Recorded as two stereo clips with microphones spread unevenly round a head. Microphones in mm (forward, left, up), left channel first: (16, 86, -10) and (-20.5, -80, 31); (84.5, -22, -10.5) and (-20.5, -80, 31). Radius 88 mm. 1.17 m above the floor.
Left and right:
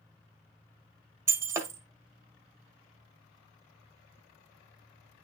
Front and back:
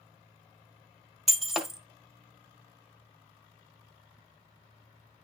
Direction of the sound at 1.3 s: 105° right.